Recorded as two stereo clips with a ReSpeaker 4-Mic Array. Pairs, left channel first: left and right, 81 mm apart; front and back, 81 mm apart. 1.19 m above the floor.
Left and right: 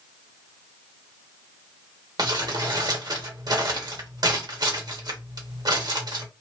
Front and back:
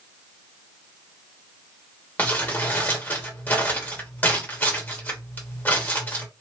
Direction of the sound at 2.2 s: 65° right.